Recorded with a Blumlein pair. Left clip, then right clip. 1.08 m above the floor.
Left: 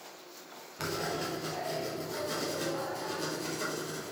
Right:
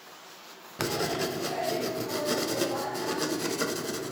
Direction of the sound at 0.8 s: 65° right.